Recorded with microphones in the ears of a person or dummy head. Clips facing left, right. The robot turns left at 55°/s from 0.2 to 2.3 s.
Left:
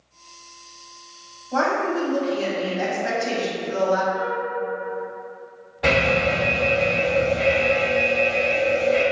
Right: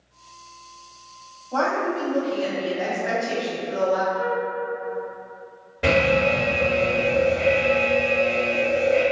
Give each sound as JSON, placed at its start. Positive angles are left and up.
{"t": 1.5, "sound": "a woman speaking", "azimuth_deg": 155, "distance_m": 0.9}
{"t": 4.1, "sound": "a flute", "side_deg": -55, "distance_m": 0.8}
{"t": 5.8, "sound": "an alarm", "side_deg": -30, "distance_m": 1.5}